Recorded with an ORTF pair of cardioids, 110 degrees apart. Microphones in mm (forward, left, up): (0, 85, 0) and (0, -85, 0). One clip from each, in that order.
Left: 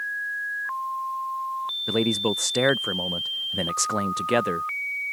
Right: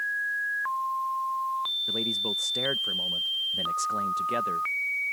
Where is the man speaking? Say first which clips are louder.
Left 4 dB; 50° left.